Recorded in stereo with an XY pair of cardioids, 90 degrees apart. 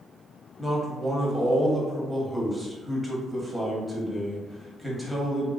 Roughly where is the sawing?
No sawing in this recording.